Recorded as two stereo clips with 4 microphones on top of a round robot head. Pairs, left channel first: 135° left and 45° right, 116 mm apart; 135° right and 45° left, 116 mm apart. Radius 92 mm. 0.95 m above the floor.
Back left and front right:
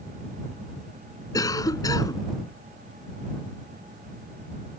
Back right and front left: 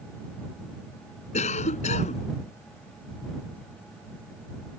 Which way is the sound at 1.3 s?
165° right.